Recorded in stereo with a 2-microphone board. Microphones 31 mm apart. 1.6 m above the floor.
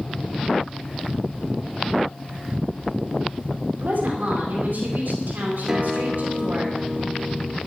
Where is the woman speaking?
75° right (ahead or behind), 4.5 m.